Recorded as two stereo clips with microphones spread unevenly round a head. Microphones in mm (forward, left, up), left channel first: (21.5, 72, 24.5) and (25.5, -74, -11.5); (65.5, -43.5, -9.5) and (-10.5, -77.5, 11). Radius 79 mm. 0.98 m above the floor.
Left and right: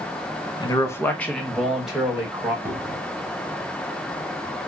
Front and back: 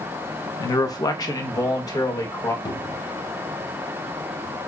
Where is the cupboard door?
10° right, 0.8 m.